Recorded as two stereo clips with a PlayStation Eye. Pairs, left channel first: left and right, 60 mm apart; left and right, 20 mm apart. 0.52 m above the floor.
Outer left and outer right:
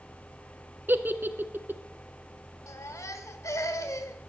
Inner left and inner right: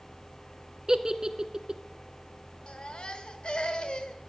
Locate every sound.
0.9 s a giggle: 35° right (ahead or behind), 1.1 m
2.7 s a baby crying: 60° left (ahead or behind), 1.6 m